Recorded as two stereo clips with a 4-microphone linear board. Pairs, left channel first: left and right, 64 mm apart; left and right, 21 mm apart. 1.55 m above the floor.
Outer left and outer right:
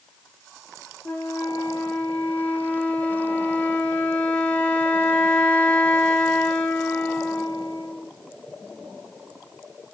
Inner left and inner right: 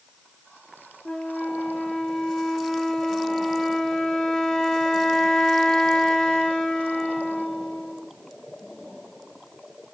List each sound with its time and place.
1.1 s a flute: 25° left (ahead or behind), 0.8 m